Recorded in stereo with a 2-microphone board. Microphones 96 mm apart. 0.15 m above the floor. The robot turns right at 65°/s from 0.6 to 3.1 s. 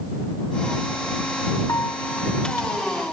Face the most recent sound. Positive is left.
turn(degrees=-150)